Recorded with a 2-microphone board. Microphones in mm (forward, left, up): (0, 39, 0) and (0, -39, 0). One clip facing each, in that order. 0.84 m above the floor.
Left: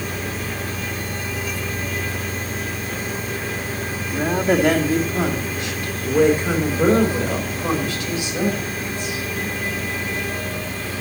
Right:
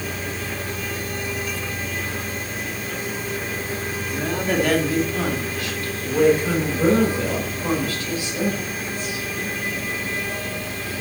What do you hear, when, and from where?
4.1 s a woman speaking: 25° left (ahead or behind), 1.8 m; by 9.2 s 20° left (ahead or behind), 5 m